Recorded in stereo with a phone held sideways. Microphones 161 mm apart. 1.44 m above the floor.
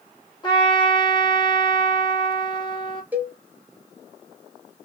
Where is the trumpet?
30° left (ahead or behind), 1.7 m.